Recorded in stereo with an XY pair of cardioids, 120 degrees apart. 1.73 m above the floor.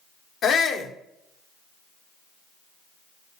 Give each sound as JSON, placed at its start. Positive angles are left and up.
{"t": 0.4, "sound": "a shout", "azimuth_deg": 50, "distance_m": 1.5}